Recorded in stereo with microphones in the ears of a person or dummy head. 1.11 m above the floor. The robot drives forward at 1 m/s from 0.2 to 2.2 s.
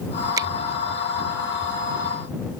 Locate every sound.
0.4 s a finger snap: 25° right (ahead or behind)